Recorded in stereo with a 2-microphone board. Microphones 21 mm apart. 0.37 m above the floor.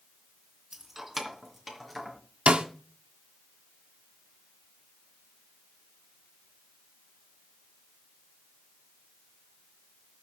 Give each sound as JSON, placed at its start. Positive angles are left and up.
{"t": 0.7, "sound": "keys jangling", "side_deg": -20, "distance_m": 2.0}
{"t": 2.5, "sound": "a snare drum", "side_deg": -70, "distance_m": 1.5}